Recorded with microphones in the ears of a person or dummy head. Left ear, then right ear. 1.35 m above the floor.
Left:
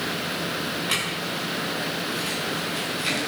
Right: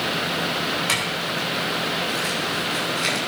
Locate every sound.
0.9 s a clink: 65° right (ahead or behind), 7 m